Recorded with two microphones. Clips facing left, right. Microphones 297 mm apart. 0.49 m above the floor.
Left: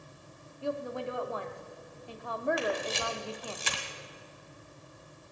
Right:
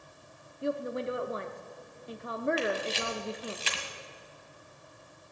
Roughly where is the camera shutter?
Left.